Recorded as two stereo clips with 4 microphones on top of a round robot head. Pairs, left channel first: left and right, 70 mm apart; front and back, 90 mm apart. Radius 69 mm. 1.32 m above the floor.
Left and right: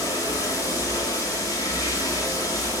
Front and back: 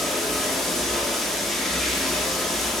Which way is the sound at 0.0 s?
85° left.